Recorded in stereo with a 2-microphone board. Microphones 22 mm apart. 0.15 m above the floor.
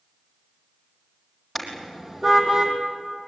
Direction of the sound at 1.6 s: 10° right (ahead or behind).